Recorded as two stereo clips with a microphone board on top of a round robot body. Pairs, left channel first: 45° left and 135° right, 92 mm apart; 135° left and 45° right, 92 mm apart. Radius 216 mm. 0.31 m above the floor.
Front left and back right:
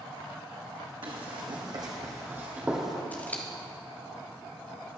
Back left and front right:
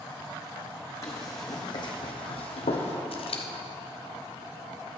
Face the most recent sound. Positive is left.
turn(degrees=120)